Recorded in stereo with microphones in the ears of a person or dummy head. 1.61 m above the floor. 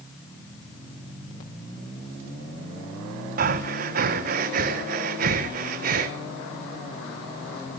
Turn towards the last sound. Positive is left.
turn(degrees=-45)  # may be behind; listen again after turning